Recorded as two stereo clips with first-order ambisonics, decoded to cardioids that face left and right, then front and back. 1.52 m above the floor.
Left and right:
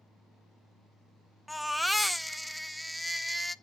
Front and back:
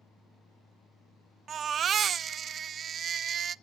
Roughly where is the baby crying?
Behind.